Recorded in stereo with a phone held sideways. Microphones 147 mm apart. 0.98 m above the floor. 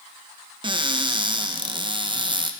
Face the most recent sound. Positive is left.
turn(degrees=-35)  # may be behind; listen again after turning